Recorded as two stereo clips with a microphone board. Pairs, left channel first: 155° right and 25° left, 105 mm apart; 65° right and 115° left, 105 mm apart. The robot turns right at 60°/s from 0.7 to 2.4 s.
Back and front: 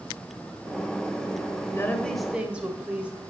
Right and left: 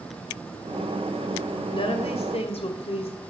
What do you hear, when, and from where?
1.7 s a woman speaking: 100° right, 2 m; by 3.2 s 55° right, 2 m